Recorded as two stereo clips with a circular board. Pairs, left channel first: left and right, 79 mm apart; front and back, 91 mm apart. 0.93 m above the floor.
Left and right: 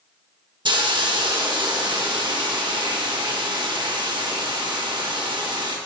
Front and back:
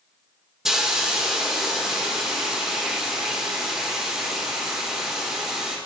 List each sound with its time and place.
0.7 s a hiss: 95° right, 0.9 m